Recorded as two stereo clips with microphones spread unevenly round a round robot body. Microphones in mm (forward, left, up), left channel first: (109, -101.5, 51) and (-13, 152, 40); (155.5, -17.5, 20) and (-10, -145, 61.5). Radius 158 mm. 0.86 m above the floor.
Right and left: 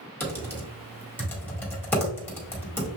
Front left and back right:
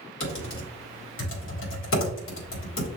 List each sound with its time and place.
0.2 s typing on a keyboard: 20° left, 1.7 m